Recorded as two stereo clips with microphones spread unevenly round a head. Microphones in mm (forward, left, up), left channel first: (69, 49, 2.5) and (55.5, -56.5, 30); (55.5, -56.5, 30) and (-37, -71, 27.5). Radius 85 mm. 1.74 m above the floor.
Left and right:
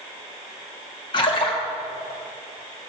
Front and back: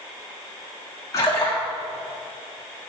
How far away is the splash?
About 1.4 m.